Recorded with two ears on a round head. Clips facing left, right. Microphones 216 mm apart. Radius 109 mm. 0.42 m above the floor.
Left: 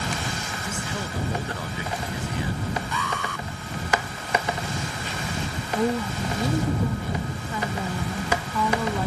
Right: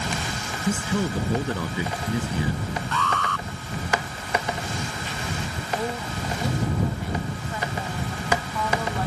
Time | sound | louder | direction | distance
0.7 | a man speaking | right 10 dB | 75° right (ahead or behind) | ?
2.9 | an alarm | right 2 dB | 10° left (ahead or behind) | ?
5.8 | a woman speaking | left 6 dB | 85° left | ?